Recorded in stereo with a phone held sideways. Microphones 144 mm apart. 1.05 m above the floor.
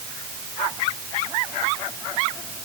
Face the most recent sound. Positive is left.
No sound to turn to.